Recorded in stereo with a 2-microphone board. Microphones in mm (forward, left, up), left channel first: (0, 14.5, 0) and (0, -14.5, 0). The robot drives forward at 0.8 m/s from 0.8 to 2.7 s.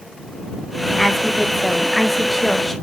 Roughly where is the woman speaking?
Centre.